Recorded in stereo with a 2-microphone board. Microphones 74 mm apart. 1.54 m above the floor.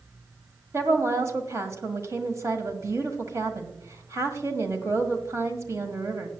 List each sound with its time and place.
0.7 s a woman speaking: 45° right (ahead or behind), 1.6 m